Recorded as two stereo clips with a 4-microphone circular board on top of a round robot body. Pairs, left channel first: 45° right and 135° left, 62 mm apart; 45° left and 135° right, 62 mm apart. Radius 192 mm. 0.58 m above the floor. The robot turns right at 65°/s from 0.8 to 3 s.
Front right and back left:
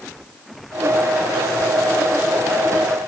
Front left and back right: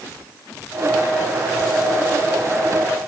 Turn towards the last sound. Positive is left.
No sound to turn to.